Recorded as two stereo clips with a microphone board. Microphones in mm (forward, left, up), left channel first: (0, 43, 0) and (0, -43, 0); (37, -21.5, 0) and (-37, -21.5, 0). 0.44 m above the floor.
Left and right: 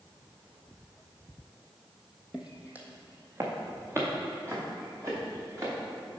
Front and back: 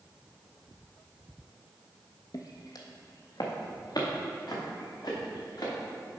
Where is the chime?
I don't hear a chime.